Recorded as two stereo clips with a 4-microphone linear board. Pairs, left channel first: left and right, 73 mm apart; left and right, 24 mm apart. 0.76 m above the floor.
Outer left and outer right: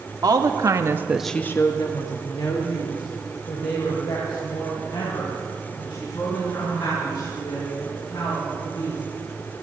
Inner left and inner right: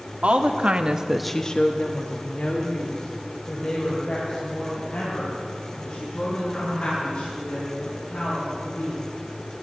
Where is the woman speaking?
65° right (ahead or behind), 1.5 m; by 9.0 s 85° left, 10.5 m.